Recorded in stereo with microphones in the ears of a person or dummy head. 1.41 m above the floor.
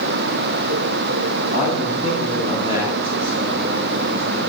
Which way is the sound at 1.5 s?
35° right (ahead or behind).